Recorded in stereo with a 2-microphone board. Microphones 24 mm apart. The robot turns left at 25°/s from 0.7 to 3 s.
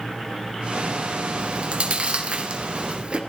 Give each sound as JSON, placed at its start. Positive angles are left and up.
{"t": 1.4, "sound": "chewing", "side_deg": -50, "distance_m": 1.7}